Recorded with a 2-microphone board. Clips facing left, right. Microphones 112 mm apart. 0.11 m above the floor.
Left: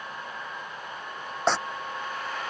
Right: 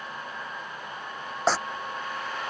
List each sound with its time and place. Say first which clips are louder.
1.5 s tearing paper: even; centre (ahead or behind)